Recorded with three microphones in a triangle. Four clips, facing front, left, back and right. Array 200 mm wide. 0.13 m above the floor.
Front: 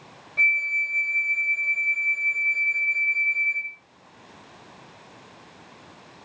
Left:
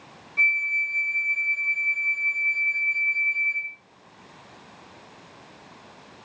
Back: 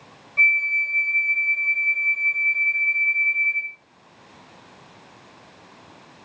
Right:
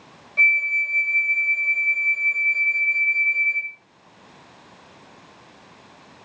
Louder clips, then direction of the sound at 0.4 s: Right 4 dB, back 3 dB; 85° right.